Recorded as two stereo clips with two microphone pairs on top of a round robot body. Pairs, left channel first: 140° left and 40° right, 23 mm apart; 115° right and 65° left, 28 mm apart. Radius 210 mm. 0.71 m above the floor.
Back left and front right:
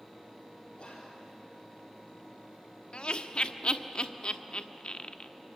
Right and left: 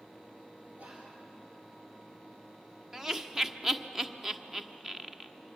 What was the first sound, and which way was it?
Whispering, 105° left.